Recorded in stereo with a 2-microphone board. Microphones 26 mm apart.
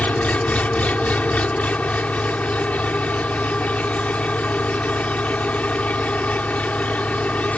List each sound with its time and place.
0.0 s an engine running: 70° left (ahead or behind)